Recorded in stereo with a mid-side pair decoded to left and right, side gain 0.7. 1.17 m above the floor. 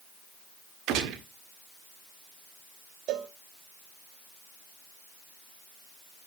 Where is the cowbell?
55° right, 1.3 m.